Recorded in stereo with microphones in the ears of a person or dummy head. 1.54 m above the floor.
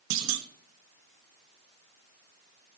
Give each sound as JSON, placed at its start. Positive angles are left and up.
{"t": 0.1, "sound": "a clunk", "side_deg": -70, "distance_m": 0.9}